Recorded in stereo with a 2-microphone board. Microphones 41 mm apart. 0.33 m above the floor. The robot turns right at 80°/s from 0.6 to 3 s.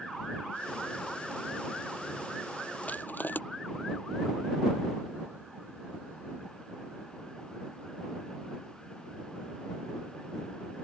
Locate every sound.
2.8 s crushing: 35° left (ahead or behind); by 3.4 s 50° left (ahead or behind)